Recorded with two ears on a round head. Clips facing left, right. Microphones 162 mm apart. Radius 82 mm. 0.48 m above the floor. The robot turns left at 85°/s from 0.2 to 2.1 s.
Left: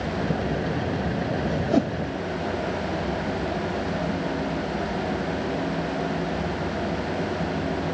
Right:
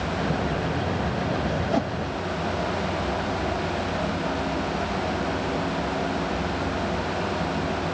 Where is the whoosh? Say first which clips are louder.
Left 6 dB; 15° left (ahead or behind); by 2.0 s 50° left (ahead or behind).